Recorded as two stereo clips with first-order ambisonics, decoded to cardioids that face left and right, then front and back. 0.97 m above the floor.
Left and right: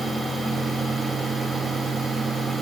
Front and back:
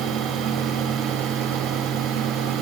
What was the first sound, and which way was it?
Only background noise.